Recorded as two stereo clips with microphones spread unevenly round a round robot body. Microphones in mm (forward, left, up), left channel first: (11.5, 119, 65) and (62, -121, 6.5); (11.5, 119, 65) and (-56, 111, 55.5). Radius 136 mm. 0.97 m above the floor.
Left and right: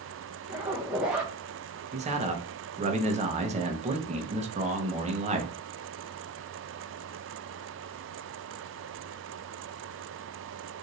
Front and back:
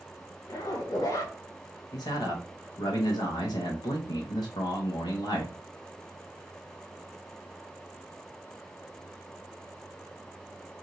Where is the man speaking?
20° right, 0.8 m.